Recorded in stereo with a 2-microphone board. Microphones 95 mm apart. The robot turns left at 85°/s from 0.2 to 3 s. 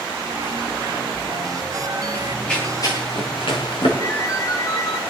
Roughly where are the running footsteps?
Right.